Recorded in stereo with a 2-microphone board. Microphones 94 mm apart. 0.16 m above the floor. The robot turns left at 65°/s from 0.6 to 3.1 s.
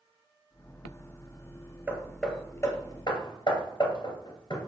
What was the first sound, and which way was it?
Hammering, 10° right (ahead or behind).